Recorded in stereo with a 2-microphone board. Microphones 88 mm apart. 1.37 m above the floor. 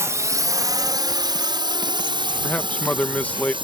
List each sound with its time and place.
0.0 s a drone: 35° right (ahead or behind); by 3.6 s 70° right (ahead or behind)
2.4 s a man speaking: 15° left (ahead or behind)